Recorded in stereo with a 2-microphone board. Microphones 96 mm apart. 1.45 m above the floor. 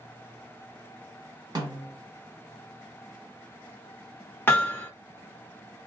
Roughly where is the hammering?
Left.